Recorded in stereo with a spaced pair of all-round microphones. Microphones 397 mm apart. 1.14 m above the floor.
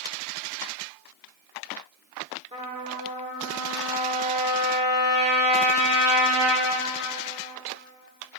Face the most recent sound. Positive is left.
turn(degrees=-15)  # may be behind; listen again after turning